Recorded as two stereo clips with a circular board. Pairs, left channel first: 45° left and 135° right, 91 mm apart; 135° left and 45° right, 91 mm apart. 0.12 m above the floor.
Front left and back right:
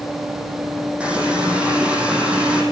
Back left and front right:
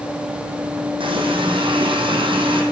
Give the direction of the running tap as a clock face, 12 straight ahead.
2 o'clock.